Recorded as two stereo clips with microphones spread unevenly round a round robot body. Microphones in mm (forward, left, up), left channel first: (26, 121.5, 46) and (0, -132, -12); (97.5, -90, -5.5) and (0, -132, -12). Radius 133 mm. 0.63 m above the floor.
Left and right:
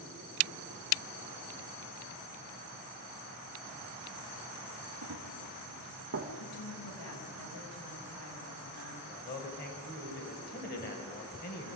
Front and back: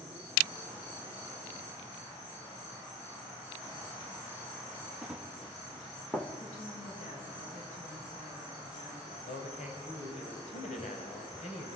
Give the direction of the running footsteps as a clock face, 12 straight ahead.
2 o'clock.